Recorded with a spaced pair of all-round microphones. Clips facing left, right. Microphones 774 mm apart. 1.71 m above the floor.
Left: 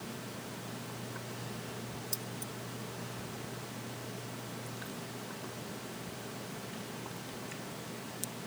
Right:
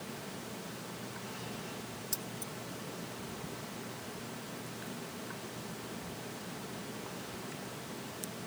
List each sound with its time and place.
2.1 s keys jangling: 45° right (ahead or behind)